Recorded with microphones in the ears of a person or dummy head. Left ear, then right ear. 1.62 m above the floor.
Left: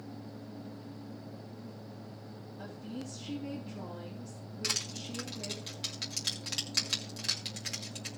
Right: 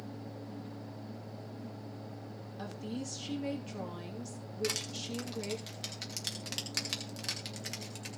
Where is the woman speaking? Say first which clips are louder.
Right 3 dB; 75° right (ahead or behind), 2.5 m.